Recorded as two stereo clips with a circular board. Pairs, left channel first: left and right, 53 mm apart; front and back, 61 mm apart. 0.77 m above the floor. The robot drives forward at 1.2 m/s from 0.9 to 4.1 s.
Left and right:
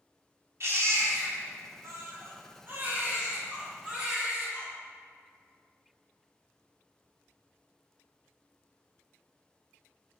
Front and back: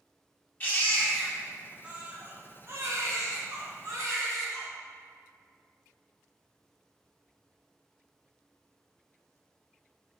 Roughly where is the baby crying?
Ahead right.